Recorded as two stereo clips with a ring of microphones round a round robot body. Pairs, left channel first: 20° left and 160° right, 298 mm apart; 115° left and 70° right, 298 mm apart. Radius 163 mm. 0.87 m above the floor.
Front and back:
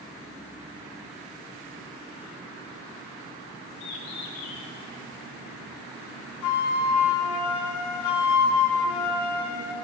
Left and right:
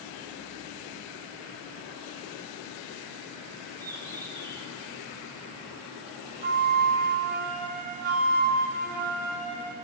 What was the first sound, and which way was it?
A bird, 30° left.